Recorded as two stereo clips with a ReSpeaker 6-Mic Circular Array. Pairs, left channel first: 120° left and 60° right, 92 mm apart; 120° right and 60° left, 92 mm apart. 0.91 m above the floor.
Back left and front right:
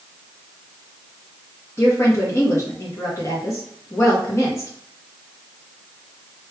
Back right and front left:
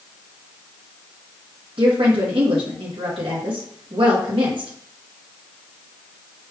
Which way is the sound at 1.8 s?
65° left.